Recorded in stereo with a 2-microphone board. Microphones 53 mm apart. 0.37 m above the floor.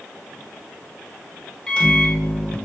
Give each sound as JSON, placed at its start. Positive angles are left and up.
{"t": 1.7, "sound": "a microwave", "side_deg": 15, "distance_m": 0.6}